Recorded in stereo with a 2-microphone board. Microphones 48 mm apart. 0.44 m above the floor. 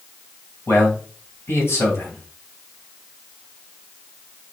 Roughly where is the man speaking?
Left.